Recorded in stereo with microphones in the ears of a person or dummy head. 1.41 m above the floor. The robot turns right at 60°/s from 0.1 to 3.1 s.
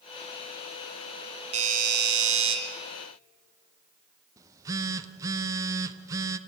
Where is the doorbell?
145° right, 2.5 m; by 2.6 s 80° right, 2.5 m.